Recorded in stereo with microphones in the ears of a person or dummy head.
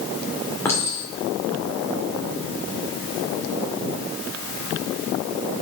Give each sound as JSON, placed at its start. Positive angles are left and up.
{"t": 0.7, "sound": "a clink", "side_deg": 10, "distance_m": 2.5}